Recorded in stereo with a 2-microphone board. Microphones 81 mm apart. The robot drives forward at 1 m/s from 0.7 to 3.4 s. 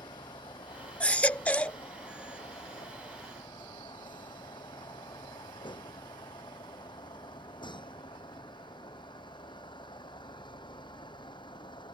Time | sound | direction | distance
0.0 | a vehicle | 85° left | ?
1.0 | a baby crying | 15° left (ahead or behind) | ?